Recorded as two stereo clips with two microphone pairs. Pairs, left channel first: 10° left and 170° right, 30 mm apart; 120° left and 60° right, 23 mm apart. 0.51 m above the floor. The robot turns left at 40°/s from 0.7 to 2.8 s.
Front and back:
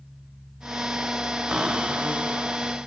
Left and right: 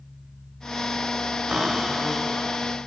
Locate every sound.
1.5 s a cupboard door: 120° right, 1.7 m; by 2.6 s 160° right, 1.7 m